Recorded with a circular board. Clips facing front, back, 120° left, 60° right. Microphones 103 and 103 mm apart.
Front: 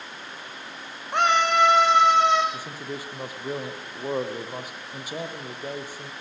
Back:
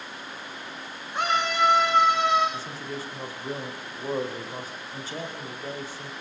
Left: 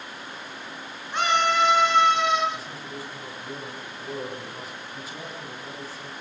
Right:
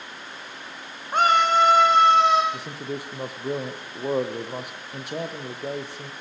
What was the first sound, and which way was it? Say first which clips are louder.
A scream: front 5 dB, right 4 dB; 15° right.